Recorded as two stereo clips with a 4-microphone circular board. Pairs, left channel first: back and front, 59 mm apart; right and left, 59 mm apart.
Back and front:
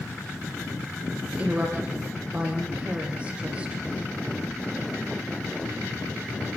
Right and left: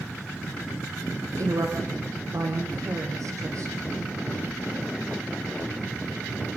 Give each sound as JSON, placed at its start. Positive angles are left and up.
{"t": 1.3, "sound": "a woman speaking", "azimuth_deg": 70, "distance_m": 5.0}